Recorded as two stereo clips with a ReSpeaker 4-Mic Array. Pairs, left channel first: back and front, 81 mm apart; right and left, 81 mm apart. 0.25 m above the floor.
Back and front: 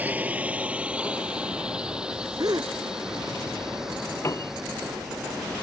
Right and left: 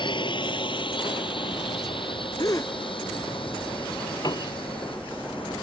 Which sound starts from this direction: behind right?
A piano, at 4.2 s.